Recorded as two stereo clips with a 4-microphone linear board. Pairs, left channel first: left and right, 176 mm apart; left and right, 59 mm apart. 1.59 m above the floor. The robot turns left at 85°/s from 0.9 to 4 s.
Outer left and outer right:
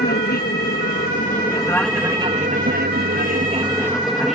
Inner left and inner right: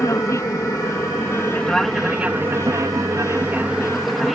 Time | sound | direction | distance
0.0 | an aircraft | 85° left | ?